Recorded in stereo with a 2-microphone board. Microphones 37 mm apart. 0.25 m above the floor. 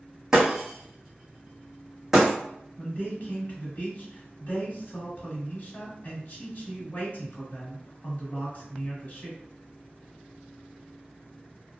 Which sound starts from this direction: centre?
Breaking glass, at 0.3 s.